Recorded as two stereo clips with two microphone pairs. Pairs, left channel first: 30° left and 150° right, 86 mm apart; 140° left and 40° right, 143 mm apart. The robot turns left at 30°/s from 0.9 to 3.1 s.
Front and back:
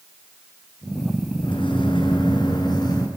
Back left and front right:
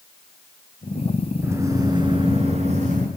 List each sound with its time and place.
1.4 s a microwave: 35° left, 5 m; by 3.1 s 15° right, 5 m